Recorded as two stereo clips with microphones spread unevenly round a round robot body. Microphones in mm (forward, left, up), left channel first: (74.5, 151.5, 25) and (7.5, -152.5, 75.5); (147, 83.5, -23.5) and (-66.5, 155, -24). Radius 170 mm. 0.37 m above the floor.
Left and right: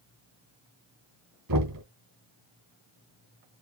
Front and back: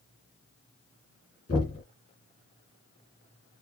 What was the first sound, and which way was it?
Knocking, 85° right.